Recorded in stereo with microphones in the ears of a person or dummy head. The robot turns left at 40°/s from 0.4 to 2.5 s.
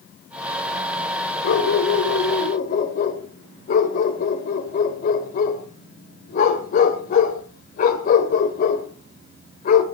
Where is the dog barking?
60° left (ahead or behind), 2.5 m; by 9.8 s 45° left (ahead or behind), 2.5 m.